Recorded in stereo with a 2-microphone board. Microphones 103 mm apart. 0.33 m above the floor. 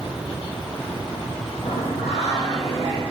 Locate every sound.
1.6 s singing: 80° left, 6 m